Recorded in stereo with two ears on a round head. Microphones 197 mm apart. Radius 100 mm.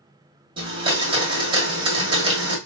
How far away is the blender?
About 1.3 m.